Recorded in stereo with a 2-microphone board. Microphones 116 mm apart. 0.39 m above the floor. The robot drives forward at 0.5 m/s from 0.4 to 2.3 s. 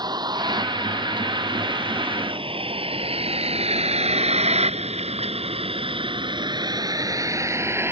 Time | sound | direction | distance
0.0 | a vehicle | 40° right (ahead or behind) | ?